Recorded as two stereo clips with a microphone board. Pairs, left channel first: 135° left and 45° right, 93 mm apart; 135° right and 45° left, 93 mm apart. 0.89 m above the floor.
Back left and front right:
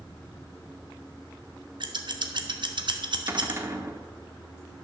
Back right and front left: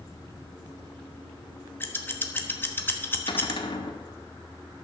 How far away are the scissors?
About 1.1 m.